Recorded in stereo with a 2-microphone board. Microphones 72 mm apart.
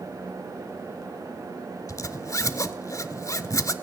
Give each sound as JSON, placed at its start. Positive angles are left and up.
{"t": 1.9, "sound": "a zipper", "side_deg": 50, "distance_m": 0.5}